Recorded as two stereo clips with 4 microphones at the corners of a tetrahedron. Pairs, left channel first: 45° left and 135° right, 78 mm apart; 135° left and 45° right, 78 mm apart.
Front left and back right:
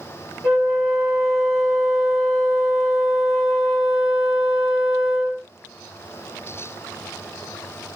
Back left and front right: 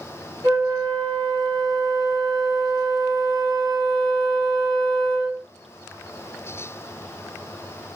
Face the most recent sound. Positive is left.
turn(degrees=-60)